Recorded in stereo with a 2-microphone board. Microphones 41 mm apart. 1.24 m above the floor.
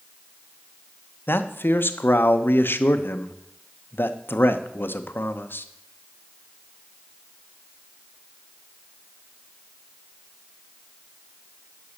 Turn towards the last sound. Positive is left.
turn(degrees=65)  # may be behind; listen again after turning